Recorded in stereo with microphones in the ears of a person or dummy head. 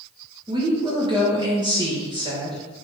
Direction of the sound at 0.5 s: 25° right (ahead or behind).